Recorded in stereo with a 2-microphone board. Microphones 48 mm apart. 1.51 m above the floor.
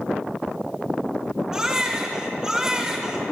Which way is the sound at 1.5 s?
15° right (ahead or behind).